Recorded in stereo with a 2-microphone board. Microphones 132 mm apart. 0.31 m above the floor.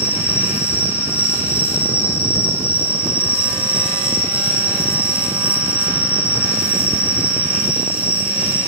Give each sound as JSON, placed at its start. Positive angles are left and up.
{"t": 0.0, "sound": "an insect", "side_deg": 15, "distance_m": 3.0}